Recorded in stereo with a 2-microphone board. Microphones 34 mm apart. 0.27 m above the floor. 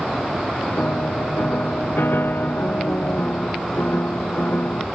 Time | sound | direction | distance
0.8 | a piano | 80° left | ?